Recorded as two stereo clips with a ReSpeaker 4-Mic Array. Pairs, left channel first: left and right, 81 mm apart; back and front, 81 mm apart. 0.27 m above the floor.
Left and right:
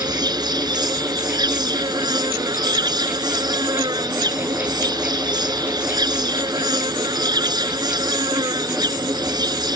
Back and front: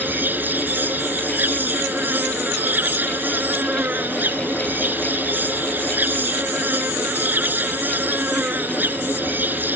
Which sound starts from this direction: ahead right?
An insect, at 0.0 s.